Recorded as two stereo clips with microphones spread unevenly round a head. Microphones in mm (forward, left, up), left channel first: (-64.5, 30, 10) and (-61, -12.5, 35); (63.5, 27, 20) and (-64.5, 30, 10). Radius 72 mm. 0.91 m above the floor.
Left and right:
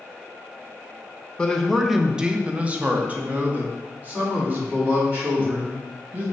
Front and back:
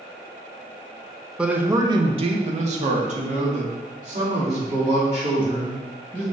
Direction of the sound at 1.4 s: 100° left.